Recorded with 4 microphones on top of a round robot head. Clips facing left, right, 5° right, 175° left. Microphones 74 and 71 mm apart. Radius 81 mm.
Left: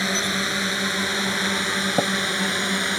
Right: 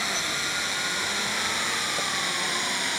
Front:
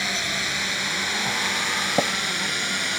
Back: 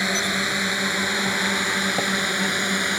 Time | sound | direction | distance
0.0 | a drone | 125° left | ?
2.0 | tapping | 60° left | ?